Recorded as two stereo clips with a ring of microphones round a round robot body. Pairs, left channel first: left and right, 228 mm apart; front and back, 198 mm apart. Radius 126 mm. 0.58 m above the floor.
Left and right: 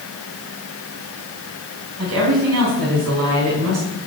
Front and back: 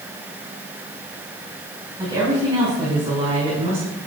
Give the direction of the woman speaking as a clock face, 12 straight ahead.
4 o'clock.